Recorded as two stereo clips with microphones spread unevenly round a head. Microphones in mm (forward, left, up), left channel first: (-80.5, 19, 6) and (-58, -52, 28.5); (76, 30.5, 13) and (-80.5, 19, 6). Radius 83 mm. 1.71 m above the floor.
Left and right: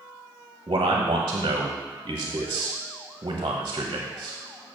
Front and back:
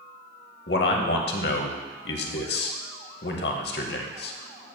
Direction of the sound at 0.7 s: 25° right.